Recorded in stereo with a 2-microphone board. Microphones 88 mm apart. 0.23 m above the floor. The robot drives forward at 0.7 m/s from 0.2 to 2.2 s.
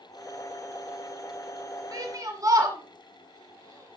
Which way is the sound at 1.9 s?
45° right (ahead or behind).